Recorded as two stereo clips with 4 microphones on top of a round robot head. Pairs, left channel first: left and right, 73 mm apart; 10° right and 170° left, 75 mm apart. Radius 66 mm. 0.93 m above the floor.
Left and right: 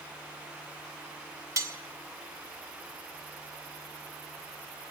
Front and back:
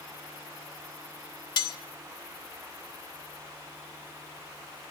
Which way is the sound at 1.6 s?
35° right.